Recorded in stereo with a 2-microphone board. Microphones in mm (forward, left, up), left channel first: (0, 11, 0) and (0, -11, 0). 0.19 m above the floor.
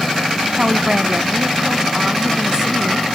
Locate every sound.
0.6 s a woman speaking: 35° right (ahead or behind); by 3.0 s 30° right (ahead or behind)